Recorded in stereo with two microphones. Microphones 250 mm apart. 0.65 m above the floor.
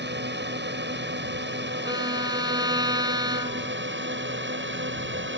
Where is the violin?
15° right (ahead or behind).